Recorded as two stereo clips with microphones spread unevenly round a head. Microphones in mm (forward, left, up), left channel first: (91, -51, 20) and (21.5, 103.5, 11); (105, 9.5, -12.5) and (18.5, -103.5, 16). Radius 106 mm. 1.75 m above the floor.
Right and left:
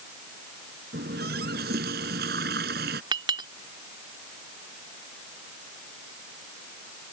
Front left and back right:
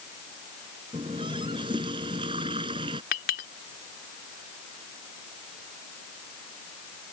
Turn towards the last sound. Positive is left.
turn(degrees=50)